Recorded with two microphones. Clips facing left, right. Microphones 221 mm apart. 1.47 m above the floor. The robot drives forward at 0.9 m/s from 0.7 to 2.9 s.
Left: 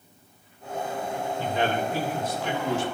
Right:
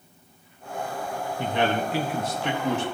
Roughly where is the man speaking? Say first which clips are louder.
Right 2 dB; right.